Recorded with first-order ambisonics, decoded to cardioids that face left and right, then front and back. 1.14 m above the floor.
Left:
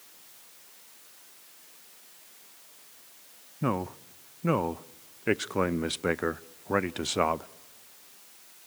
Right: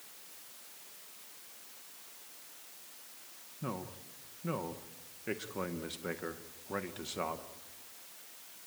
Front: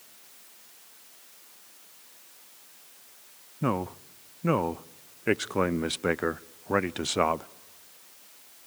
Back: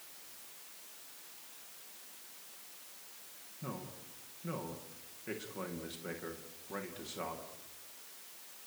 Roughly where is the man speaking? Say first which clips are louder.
Left 11 dB, front 16 dB; ahead left.